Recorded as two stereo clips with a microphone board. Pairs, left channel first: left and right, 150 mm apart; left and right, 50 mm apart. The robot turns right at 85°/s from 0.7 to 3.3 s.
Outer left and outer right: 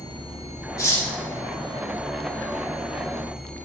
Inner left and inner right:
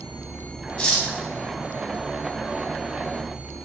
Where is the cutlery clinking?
20° left (ahead or behind), 0.6 m; by 1.1 s 10° left (ahead or behind), 0.6 m.